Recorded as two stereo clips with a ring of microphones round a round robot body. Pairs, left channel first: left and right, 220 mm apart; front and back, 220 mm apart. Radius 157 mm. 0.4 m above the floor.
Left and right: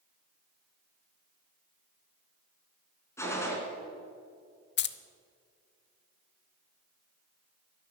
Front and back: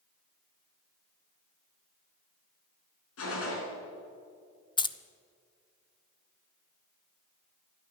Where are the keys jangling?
65° left, 0.7 m.